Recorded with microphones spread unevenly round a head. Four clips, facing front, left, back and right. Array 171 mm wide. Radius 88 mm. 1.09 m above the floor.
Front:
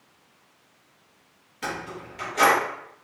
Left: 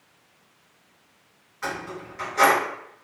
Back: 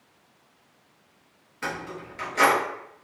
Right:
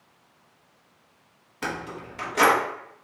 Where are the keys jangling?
90° right, 0.9 m.